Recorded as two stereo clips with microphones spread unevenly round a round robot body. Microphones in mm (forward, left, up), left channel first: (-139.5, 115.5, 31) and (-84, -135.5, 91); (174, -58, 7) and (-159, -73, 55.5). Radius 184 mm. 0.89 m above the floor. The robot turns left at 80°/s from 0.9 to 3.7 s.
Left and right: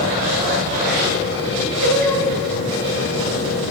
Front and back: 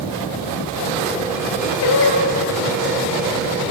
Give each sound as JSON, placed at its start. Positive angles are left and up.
{"t": 1.8, "sound": "singing", "azimuth_deg": -40, "distance_m": 2.5}